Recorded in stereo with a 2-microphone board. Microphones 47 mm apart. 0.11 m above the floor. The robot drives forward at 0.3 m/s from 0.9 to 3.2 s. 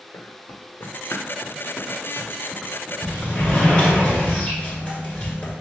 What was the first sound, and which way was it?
Running footsteps, 85° left.